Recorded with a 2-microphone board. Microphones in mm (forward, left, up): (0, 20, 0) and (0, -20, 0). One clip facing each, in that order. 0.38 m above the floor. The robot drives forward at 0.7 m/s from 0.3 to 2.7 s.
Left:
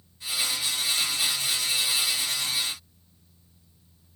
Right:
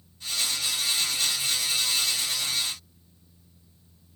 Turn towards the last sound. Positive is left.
No sound to turn to.